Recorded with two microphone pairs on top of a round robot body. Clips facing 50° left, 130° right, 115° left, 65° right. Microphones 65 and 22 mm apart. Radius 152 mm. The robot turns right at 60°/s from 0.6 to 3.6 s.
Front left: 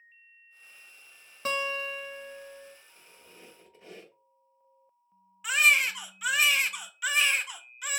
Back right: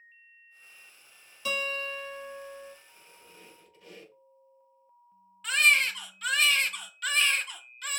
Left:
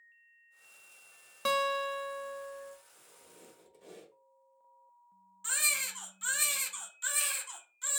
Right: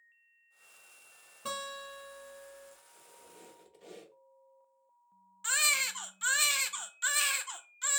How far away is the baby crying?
About 0.6 m.